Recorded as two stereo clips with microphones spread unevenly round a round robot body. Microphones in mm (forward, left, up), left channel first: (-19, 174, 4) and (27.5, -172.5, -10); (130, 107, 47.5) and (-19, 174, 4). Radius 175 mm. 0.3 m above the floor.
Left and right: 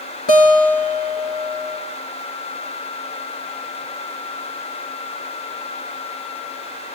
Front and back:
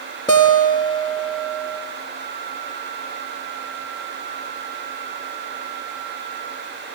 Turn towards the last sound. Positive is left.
turn(degrees=45)